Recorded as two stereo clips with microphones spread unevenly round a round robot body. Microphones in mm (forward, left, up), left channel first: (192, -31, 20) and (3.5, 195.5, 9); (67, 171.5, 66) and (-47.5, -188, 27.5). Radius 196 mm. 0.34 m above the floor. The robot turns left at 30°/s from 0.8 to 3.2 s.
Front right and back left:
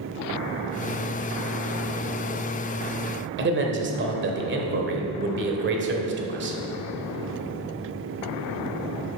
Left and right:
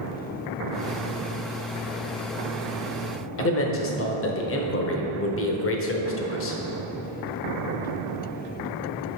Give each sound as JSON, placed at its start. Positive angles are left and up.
{"t": 3.4, "sound": "a man speaking", "azimuth_deg": 115, "distance_m": 1.0}